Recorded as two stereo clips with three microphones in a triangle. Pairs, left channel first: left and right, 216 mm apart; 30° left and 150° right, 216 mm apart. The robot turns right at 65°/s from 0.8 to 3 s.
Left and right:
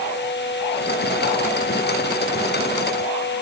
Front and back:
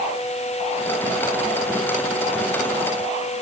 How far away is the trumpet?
I don't hear a trumpet.